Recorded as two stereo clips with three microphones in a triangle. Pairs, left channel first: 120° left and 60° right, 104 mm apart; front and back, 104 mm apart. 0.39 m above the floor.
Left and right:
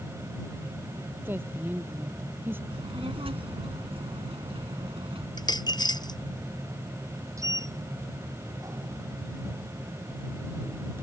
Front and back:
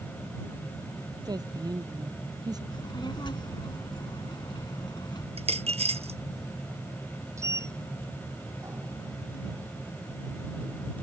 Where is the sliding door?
120° right.